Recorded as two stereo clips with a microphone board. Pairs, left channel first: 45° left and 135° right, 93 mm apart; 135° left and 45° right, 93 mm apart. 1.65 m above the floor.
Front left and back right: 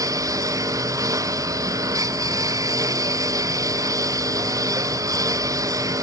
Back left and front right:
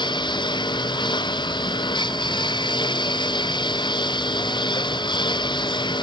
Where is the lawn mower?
170° left.